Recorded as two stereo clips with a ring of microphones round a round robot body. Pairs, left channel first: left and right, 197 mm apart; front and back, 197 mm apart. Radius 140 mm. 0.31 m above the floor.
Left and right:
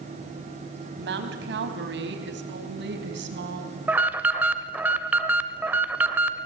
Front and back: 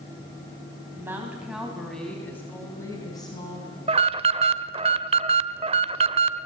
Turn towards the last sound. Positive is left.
turn(degrees=-165)